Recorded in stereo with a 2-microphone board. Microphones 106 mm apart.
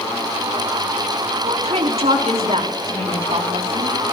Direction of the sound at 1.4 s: 80° right.